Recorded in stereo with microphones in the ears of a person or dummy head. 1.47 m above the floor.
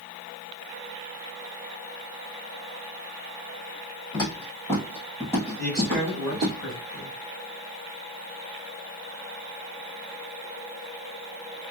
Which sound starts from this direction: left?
Footsteps, at 4.1 s.